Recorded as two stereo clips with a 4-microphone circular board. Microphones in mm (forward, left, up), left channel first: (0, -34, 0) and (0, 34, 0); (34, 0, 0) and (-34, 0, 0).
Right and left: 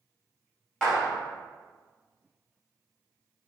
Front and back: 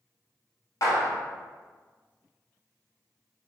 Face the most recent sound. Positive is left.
turn(degrees=-5)